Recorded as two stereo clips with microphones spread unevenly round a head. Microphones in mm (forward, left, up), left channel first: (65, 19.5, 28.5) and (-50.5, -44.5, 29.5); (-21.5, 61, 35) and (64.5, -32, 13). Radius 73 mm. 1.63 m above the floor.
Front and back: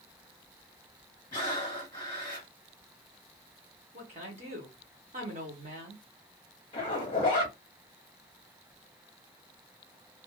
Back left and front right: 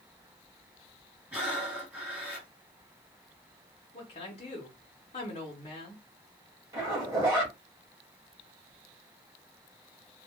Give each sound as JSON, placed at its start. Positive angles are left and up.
{"t": 1.3, "sound": "breathing", "azimuth_deg": 40, "distance_m": 1.2}
{"t": 3.9, "sound": "a woman speaking", "azimuth_deg": 170, "distance_m": 1.0}
{"t": 6.7, "sound": "a zipper", "azimuth_deg": 15, "distance_m": 1.0}